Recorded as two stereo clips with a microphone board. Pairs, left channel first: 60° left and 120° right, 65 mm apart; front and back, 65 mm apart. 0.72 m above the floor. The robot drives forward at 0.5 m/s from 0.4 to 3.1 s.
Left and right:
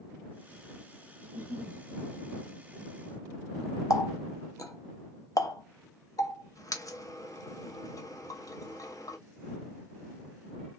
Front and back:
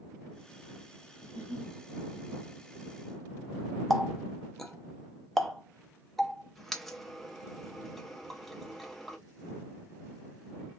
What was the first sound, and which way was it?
A giggle, 175° right.